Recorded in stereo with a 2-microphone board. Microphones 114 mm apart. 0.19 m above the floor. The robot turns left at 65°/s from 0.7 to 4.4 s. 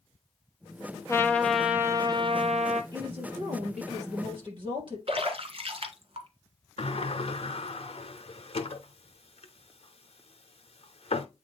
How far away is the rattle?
No rattle in this recording.